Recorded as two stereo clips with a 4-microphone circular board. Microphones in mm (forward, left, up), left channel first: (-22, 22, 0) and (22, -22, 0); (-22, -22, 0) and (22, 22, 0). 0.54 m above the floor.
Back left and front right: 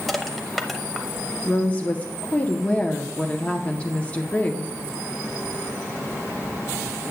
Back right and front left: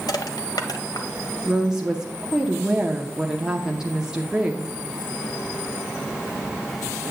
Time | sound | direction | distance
0.1 | crushing | 135° right | 0.8 m
1.4 | a woman speaking | 105° left | 0.6 m